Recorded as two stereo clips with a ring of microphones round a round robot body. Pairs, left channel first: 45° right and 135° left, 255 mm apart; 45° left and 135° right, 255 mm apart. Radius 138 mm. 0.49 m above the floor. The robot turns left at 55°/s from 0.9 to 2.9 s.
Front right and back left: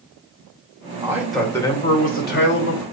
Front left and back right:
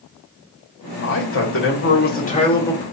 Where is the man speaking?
65° left, 1.6 m; by 2.8 s 40° right, 1.6 m.